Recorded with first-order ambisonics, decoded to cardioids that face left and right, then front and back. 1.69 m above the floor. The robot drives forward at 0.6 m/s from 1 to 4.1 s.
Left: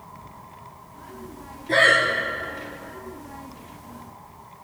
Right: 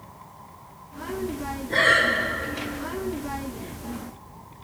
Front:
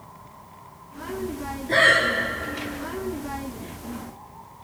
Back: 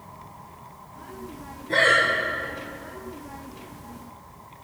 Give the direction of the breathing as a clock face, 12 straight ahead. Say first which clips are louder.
Left 2 dB, front 1 dB; 10 o'clock.